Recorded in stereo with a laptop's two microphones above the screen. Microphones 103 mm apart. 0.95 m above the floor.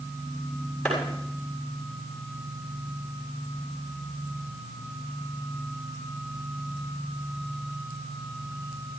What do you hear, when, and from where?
0.8 s a clap: 10° left (ahead or behind), 6.5 m